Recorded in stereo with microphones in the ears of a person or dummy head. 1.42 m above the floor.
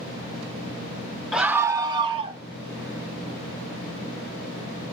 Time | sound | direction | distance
1.3 | a scream | centre (ahead or behind) | 0.6 m